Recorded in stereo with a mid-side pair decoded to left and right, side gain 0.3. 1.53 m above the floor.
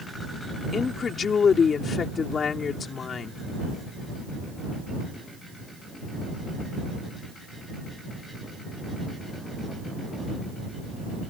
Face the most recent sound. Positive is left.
turn(degrees=65)